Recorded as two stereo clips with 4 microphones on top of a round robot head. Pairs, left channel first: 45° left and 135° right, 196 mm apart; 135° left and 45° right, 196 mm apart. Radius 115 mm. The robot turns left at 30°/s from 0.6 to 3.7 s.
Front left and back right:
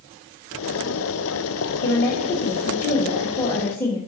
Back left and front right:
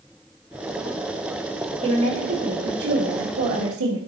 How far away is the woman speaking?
About 1.5 m.